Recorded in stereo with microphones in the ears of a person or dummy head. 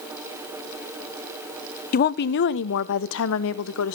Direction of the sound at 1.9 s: 45° left (ahead or behind).